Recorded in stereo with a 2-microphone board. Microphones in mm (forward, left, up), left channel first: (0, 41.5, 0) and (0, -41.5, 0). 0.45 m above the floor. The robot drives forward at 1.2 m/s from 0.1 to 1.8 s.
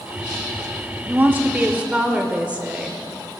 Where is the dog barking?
No dog barking in this recording.